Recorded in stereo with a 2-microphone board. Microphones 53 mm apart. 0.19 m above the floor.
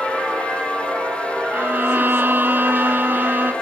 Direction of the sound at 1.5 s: 40° right (ahead or behind).